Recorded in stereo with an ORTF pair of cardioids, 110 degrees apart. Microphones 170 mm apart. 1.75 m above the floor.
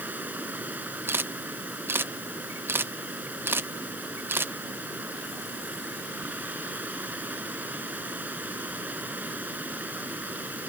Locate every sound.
0.0 s running water: 10° right
1.1 s a camera shutter: 15° right